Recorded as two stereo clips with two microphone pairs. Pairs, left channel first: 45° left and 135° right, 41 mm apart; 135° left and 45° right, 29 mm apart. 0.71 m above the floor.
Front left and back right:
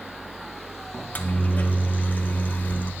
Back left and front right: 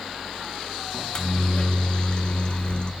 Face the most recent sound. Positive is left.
turn(degrees=85)